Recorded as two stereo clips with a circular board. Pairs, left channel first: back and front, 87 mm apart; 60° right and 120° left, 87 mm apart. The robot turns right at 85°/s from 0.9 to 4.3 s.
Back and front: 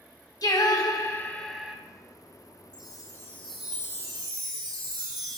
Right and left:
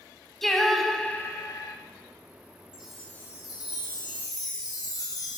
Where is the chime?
165° right, 1.9 m; by 5.4 s 30° right, 1.9 m.